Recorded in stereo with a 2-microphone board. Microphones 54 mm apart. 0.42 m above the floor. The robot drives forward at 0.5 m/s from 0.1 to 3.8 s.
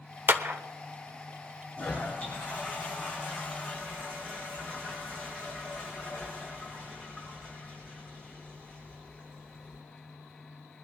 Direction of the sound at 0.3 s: 40° right (ahead or behind).